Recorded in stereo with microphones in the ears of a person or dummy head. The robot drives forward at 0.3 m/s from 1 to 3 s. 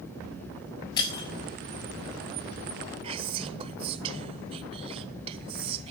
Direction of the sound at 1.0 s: 25° left (ahead or behind).